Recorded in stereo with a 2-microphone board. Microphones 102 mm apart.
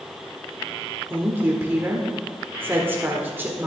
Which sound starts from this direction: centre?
A woman speaking, at 1.1 s.